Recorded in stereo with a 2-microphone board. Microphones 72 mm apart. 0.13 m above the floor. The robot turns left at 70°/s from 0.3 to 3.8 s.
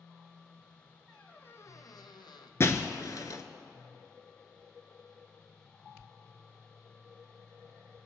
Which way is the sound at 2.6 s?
35° left (ahead or behind).